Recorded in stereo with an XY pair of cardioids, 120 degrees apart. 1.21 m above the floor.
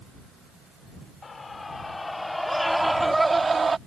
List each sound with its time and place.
1.2 s a scream: 30° left; by 3.8 s 25° right